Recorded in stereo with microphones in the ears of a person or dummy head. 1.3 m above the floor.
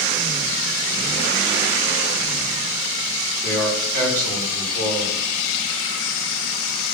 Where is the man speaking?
50° right (ahead or behind), 4 m.